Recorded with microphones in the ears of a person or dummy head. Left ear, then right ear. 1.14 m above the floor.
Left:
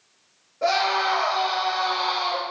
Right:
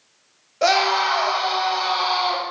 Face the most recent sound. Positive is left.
turn(degrees=-70)  # may be behind; listen again after turning